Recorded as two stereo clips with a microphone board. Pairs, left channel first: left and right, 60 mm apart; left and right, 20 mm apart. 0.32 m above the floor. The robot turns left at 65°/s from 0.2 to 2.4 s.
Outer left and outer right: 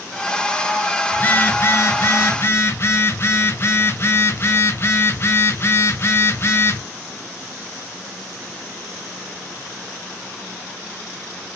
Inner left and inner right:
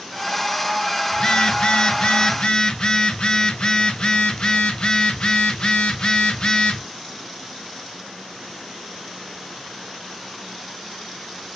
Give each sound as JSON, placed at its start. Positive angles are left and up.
{"t": 1.1, "sound": "a phone buzzing", "azimuth_deg": 150, "distance_m": 1.0}